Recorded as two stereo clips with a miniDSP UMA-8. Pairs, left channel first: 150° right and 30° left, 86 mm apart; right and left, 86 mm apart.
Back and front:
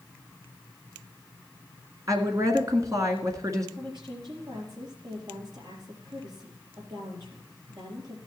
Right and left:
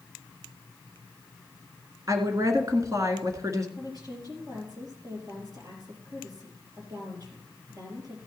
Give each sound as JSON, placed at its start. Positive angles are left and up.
{"t": 2.1, "sound": "a woman speaking", "azimuth_deg": 60, "distance_m": 1.6}
{"t": 3.8, "sound": "a woman speaking", "azimuth_deg": 50, "distance_m": 4.0}